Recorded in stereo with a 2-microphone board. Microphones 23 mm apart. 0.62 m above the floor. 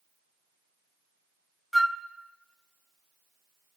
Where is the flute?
Centre (ahead or behind), 0.7 m.